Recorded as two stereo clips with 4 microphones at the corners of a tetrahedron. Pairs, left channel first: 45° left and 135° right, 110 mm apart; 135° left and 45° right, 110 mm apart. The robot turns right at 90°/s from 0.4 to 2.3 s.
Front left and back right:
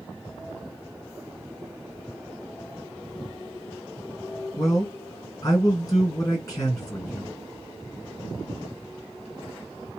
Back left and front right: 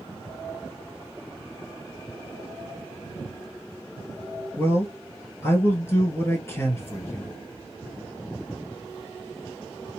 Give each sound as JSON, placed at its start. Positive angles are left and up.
{"t": 4.6, "sound": "a man speaking", "azimuth_deg": 85, "distance_m": 1.9}